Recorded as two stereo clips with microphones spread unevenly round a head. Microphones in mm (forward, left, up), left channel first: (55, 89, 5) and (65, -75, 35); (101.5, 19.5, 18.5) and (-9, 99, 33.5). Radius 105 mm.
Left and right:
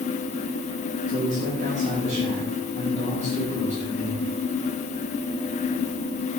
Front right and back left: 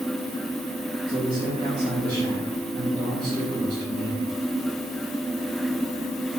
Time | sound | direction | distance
1.1 | a man speaking | 145° right | 4 m